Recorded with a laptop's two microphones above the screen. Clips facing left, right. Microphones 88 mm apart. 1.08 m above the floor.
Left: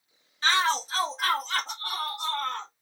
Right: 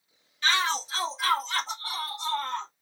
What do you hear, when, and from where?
0.4 s a shout: 35° left (ahead or behind), 1.3 m; by 2.7 s 50° left (ahead or behind), 3 m